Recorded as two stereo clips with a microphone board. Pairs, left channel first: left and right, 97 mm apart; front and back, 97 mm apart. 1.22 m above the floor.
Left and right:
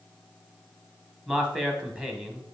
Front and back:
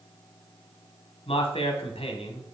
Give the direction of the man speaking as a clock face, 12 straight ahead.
12 o'clock.